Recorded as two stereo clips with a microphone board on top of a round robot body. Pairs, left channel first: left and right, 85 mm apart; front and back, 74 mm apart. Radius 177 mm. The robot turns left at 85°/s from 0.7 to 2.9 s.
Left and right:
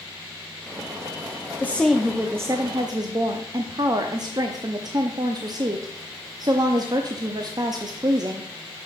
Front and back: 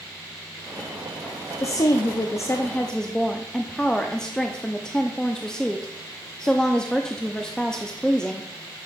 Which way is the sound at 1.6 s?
30° left.